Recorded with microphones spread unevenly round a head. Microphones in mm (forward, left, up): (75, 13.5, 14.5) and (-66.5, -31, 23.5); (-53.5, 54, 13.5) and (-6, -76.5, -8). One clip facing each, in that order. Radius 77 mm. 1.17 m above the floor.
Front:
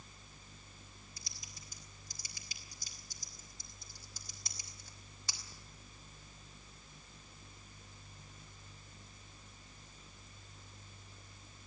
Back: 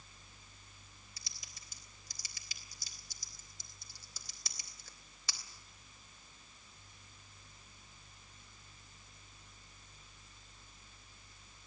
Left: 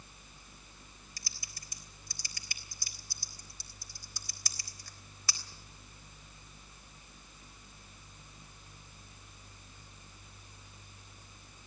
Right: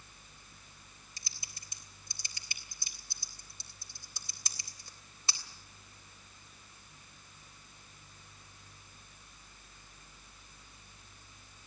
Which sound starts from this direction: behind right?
Typing on a keyboard, at 1.2 s.